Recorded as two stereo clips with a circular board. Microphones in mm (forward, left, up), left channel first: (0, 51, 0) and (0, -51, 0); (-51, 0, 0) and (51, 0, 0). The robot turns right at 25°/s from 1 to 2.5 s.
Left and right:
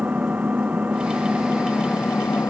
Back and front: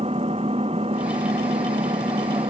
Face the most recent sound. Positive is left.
turn(degrees=25)